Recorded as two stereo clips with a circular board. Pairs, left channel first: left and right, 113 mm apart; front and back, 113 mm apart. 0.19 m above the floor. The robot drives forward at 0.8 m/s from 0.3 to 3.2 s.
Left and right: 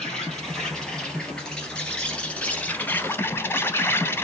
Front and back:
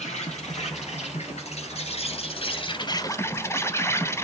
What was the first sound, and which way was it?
An insect, 5° left.